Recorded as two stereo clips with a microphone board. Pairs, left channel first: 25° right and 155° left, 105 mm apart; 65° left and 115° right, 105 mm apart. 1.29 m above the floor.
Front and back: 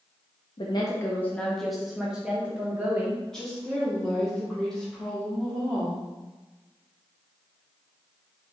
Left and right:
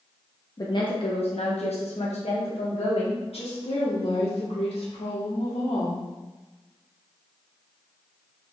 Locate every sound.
0.6 s a woman speaking: 10° left, 0.5 m; by 3.2 s 85° left, 1.8 m
3.3 s a woman speaking: 60° left, 1.4 m